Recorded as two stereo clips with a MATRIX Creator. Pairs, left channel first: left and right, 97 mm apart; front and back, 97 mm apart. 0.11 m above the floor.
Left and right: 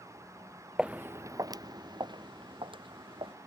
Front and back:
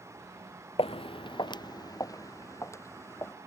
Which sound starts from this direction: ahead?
Footsteps, at 0.8 s.